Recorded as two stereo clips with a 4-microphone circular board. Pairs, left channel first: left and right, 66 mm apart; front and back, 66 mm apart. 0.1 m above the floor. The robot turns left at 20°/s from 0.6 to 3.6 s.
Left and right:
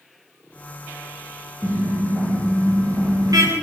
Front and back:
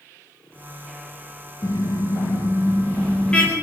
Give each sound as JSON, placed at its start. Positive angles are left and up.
{"t": 1.6, "sound": "a car horn", "azimuth_deg": -40, "distance_m": 8.5}